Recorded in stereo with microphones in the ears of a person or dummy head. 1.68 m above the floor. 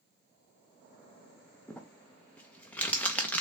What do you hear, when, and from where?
1.7 s crumpling: 5° left (ahead or behind), 0.5 m